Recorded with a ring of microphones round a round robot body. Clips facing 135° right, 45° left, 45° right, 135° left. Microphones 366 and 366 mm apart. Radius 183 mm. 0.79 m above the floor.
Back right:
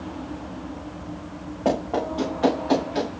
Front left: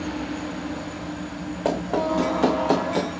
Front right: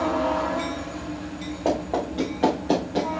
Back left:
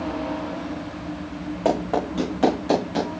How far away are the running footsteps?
About 4.5 m.